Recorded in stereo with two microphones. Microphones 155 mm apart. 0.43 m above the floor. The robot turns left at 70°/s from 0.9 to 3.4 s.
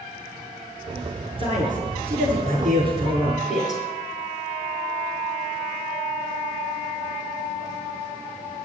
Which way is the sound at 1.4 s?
40° right.